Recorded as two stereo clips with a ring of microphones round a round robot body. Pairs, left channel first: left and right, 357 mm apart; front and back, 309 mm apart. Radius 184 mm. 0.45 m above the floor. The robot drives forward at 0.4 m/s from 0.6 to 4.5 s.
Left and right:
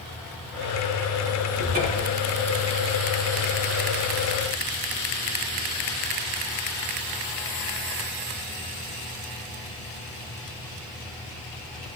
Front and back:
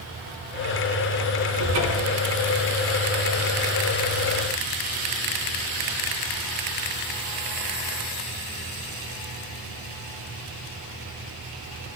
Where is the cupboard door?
155° right, 3.5 m; by 2.2 s 160° right, 4 m.